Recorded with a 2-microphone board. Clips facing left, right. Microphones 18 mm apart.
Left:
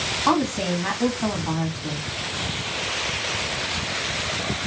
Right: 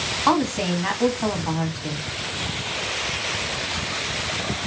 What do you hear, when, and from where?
0.3 s a woman speaking: 10° right (ahead or behind), 1.3 m